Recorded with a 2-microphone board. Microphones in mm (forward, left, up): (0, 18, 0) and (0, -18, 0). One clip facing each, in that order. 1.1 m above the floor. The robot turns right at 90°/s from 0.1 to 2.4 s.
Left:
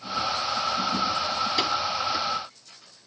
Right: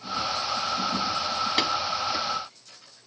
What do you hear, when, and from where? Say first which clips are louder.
1.6 s tapping: right 2 dB; 55° right (ahead or behind), 4.5 m; by 1.7 s 65° right (ahead or behind), 4.5 m